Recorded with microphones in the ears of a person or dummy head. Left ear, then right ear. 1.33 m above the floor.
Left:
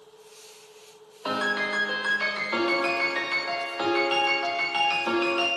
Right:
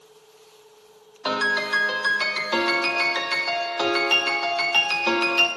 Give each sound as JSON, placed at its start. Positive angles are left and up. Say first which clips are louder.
{"t": 1.2, "sound": "a piano", "louder": "right 4 dB", "side_deg": -25, "distance_m": 0.6}